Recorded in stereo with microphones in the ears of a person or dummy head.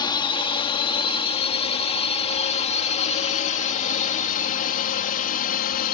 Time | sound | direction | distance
0.0 | a drone | 30° left (ahead or behind) | ?